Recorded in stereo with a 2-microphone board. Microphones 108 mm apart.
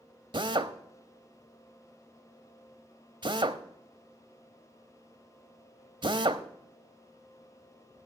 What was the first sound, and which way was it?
A drill, 45° right (ahead or behind).